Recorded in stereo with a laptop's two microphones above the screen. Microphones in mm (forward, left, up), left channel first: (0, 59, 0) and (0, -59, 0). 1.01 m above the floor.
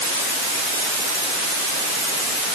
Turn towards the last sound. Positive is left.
No sound to turn to.